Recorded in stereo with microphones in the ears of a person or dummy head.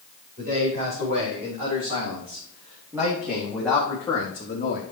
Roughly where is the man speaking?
Right.